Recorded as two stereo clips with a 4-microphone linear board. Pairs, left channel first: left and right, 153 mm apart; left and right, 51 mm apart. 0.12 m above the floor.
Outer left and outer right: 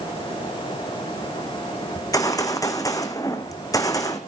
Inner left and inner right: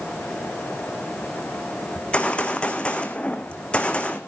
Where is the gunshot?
20° left (ahead or behind), 1.6 m.